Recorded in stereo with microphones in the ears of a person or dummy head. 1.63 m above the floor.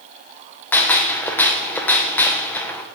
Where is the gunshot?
10° left (ahead or behind), 0.7 m.